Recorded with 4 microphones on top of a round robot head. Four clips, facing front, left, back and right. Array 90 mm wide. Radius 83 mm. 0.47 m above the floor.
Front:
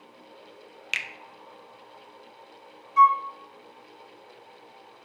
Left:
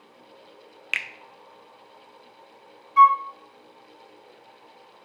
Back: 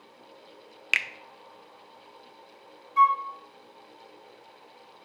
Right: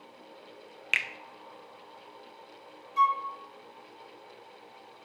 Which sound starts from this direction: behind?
A finger snap, at 0.9 s.